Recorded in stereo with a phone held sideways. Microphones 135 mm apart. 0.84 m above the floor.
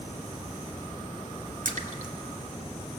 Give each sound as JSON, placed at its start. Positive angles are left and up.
{"t": 1.6, "sound": "a splash", "side_deg": -80, "distance_m": 1.7}